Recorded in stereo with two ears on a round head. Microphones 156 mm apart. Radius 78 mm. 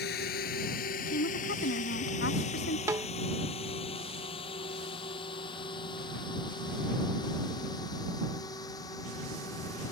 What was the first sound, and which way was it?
A drone, 55° left (ahead or behind).